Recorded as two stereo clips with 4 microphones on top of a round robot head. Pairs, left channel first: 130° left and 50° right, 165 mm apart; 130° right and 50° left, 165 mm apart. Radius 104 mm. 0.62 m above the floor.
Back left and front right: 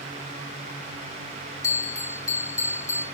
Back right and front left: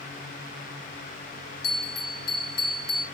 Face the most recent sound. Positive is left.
turn(degrees=-155)